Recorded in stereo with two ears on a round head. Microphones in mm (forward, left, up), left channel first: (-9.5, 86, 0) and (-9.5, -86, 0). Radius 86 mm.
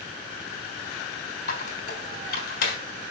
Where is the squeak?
60° left (ahead or behind), 3 m.